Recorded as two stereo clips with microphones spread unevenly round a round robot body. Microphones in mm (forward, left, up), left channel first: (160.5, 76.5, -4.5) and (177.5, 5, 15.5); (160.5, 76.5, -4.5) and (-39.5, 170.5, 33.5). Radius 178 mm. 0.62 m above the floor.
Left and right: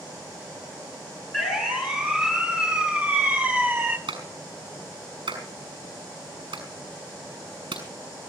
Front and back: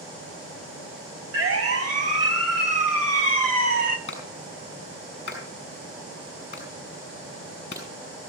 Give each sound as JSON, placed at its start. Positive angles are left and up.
{"t": 1.3, "sound": "a siren", "azimuth_deg": 145, "distance_m": 5.0}
{"t": 4.1, "sound": "a clap", "azimuth_deg": -95, "distance_m": 5.5}